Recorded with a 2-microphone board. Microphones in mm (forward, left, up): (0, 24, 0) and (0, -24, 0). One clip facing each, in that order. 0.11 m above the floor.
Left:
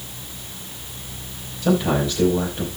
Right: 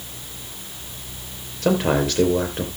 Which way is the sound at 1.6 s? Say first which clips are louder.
Even; 55° right (ahead or behind).